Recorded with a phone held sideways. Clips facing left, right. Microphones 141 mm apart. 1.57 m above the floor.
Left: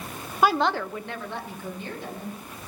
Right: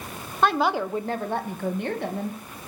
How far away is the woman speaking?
About 1.0 m.